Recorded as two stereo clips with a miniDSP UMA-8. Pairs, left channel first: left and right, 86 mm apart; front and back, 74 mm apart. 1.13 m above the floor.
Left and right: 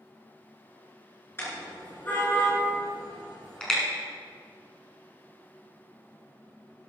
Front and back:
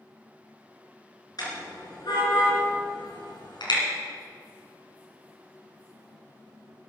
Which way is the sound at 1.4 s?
25° left.